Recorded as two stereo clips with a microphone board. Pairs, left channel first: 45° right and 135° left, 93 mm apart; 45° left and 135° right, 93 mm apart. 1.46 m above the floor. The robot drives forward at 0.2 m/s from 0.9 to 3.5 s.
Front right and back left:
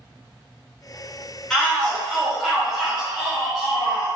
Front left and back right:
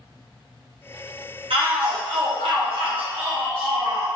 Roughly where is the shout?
Behind right.